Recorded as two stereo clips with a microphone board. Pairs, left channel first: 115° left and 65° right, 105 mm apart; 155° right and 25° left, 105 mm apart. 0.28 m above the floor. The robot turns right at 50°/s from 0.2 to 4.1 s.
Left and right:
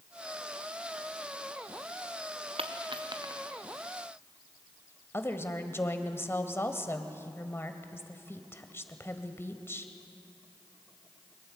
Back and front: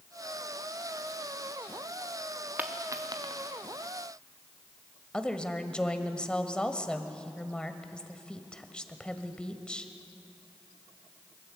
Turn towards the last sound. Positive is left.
turn(degrees=135)